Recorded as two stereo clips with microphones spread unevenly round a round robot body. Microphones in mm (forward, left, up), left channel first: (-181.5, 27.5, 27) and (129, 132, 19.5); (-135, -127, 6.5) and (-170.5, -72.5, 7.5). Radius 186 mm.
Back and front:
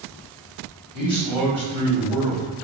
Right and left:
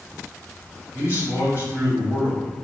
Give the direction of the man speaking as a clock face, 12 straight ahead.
2 o'clock.